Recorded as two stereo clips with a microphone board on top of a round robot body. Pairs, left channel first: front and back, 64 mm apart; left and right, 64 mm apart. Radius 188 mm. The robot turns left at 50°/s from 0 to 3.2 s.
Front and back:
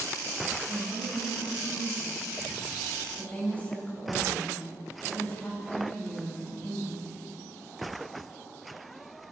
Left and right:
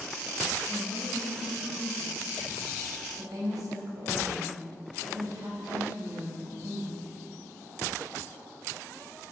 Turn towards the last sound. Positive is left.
turn(degrees=-65)